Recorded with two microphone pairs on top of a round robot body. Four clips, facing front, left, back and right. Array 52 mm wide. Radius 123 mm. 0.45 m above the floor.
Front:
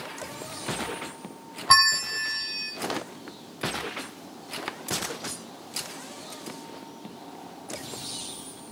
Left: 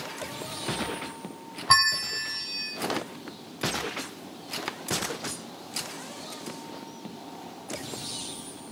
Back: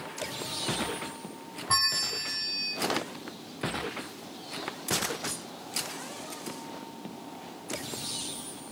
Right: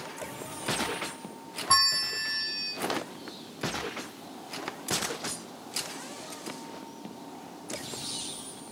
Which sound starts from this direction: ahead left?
A bell, at 1.7 s.